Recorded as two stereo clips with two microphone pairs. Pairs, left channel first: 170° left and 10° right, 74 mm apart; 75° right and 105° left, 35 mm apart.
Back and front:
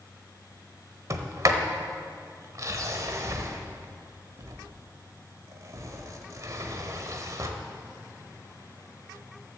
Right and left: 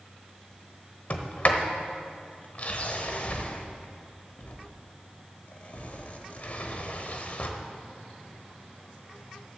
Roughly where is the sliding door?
Ahead right.